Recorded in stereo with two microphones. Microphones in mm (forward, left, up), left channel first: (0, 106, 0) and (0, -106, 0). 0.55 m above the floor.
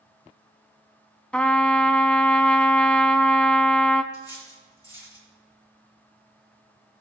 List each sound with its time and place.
1.3 s a trumpet: 5° left (ahead or behind), 0.6 m
4.1 s cutlery clinking: 15° left (ahead or behind), 7 m